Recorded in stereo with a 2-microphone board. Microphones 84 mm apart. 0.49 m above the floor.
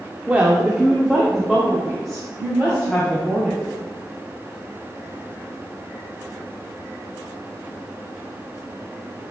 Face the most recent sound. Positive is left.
turn(degrees=0)  # may be behind; listen again after turning